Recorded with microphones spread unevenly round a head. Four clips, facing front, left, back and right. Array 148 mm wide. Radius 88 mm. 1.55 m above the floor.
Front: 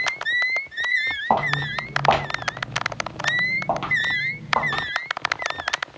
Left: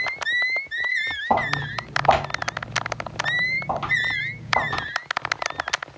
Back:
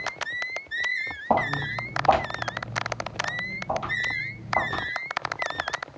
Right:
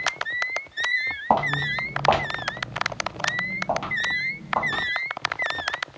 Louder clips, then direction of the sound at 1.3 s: Right 1 dB, front 2 dB; 125° right.